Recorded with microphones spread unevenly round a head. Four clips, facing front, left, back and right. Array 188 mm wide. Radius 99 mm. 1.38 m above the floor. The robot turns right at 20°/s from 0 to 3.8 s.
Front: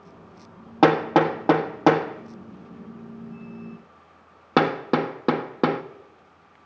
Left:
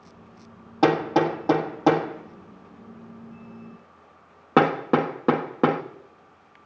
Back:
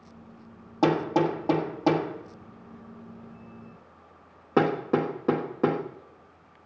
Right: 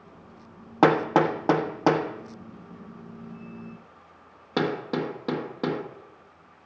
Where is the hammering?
25° right, 1.4 m; by 5.8 s 35° left, 1.4 m.